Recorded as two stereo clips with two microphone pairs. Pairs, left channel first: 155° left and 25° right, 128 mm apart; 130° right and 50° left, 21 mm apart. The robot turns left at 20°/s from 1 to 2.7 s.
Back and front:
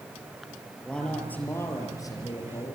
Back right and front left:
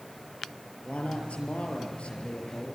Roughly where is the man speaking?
Behind right.